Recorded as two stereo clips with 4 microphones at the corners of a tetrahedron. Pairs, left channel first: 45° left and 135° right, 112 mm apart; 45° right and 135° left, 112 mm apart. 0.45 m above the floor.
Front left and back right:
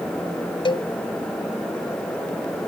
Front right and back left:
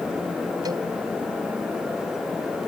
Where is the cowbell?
85° left.